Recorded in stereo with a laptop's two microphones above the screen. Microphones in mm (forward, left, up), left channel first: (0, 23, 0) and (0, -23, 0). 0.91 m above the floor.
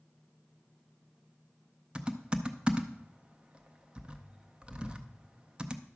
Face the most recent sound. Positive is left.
turn(degrees=-20)  # may be behind; listen again after turning